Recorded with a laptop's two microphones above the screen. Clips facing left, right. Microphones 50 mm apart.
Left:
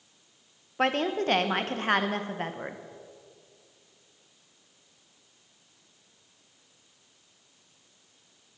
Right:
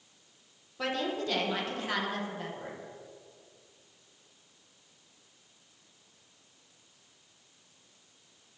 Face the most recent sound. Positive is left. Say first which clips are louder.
# left 6 dB
turn(degrees=45)  # may be behind; listen again after turning